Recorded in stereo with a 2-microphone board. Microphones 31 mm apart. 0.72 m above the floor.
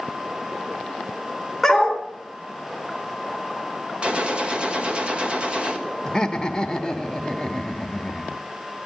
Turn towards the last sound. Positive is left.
turn(degrees=15)  # may be behind; listen again after turning